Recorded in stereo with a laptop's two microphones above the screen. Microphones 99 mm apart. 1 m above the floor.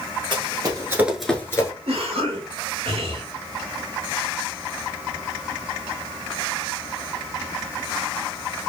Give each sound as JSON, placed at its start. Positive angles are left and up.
{"t": 0.3, "sound": "running footsteps", "side_deg": -55, "distance_m": 1.5}
{"t": 1.9, "sound": "a cough", "side_deg": -75, "distance_m": 2.0}